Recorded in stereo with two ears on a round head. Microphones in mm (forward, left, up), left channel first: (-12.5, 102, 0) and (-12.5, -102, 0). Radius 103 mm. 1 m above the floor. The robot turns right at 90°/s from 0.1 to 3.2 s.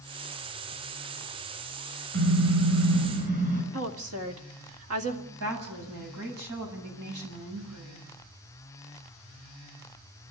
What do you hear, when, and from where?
2.1 s a car horn: 130° right, 8.5 m; by 3.6 s 35° right, 8.5 m
3.7 s a woman speaking: 65° right (ahead or behind), 2 m
5.3 s a woman speaking: 80° right, 7.5 m